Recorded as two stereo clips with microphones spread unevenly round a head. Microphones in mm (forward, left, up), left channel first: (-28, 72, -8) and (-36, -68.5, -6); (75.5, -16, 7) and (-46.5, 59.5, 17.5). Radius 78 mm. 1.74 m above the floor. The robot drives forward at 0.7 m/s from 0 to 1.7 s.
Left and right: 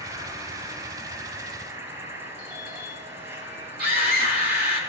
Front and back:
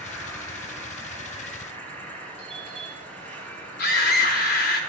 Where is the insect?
160° right, 3.5 m; by 4.9 s 165° right, 4.5 m.